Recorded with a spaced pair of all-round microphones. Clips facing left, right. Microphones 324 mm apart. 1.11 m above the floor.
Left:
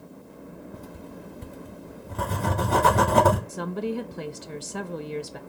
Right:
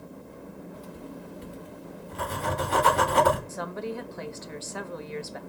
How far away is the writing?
About 1.4 m.